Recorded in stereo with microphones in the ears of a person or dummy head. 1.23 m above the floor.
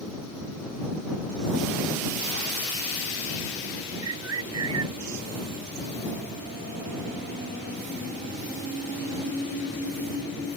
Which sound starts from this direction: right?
A bird, at 4.0 s.